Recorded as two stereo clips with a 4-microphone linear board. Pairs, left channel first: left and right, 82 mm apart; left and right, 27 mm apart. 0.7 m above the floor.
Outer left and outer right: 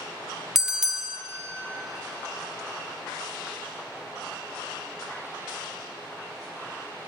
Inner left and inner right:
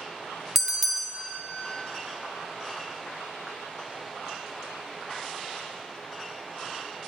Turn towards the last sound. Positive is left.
turn(degrees=-5)  # may be behind; listen again after turning